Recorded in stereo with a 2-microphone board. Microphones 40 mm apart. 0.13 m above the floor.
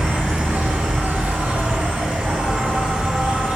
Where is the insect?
45° right (ahead or behind), 1.0 m.